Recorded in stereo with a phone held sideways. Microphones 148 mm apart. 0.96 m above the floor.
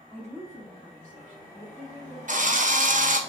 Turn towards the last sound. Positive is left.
turn(degrees=-60)  # may be behind; listen again after turning